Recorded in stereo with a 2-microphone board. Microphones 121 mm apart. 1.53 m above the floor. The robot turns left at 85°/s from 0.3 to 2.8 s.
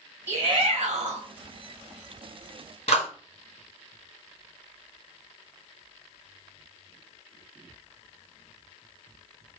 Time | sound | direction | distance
0.3 | a shout | 20° right | 1.3 m
2.9 | a clap | 55° left (ahead or behind) | 1.9 m